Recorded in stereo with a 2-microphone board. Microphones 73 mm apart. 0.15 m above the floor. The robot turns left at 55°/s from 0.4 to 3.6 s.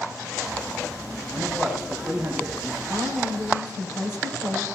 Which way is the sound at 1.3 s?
35° left.